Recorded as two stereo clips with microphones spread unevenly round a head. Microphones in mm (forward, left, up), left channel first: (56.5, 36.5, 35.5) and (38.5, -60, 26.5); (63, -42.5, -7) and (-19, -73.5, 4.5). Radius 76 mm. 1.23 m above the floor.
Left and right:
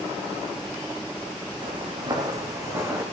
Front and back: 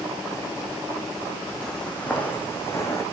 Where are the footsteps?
70° right, 2.5 m; by 3.0 s 35° right, 3.5 m.